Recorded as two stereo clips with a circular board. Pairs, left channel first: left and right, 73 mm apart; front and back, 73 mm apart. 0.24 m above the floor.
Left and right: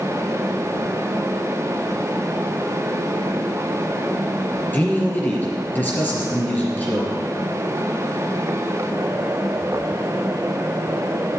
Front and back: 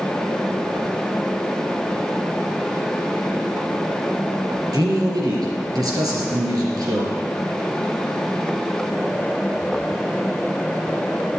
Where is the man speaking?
150° left, 3.5 m.